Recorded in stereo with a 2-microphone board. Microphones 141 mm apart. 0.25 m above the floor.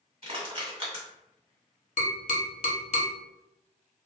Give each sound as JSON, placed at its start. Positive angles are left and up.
{"t": 0.2, "sound": "crushing", "side_deg": -40, "distance_m": 1.8}
{"t": 2.0, "sound": "tapping", "side_deg": 60, "distance_m": 0.8}